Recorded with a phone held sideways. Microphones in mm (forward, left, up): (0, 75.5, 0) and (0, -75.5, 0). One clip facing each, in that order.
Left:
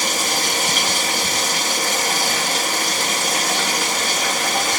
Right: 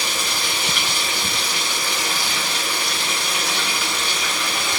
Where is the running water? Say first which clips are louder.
Left 4 dB; 45° left (ahead or behind), 4 m.